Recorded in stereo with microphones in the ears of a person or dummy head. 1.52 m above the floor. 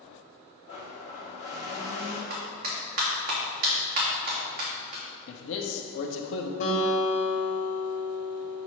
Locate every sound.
0.7 s a blender: 35° left (ahead or behind), 1.7 m
2.3 s a clap: 45° right (ahead or behind), 1.8 m
5.3 s a man speaking: 70° left (ahead or behind), 1.0 m
6.6 s a guitar: 50° left (ahead or behind), 1.8 m